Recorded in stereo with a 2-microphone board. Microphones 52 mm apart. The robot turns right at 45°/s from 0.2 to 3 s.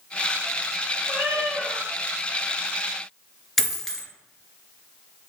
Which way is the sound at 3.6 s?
Centre (ahead or behind).